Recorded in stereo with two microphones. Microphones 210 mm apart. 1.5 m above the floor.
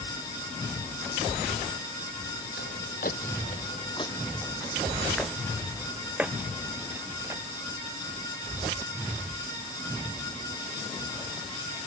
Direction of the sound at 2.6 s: 60° left (ahead or behind).